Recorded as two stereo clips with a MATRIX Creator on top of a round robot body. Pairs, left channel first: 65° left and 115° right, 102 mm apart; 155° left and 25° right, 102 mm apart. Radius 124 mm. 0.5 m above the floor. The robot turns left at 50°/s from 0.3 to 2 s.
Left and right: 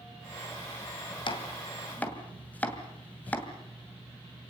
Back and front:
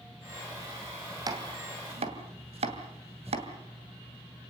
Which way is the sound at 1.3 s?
30° left.